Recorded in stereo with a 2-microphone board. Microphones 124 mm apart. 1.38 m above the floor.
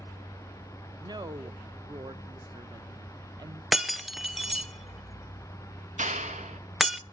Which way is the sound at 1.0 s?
35° right (ahead or behind).